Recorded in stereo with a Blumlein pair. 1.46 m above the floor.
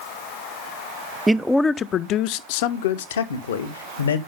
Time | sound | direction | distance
1.3 | a man speaking | 10° right | 0.6 m